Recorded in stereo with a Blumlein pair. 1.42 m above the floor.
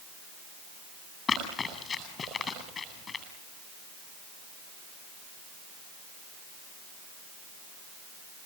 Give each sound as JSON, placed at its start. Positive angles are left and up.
{"t": 1.3, "sound": "running footsteps", "azimuth_deg": 20, "distance_m": 9.0}